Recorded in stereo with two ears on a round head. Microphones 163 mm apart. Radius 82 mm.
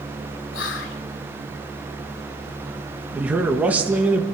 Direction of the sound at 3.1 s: 10° right (ahead or behind).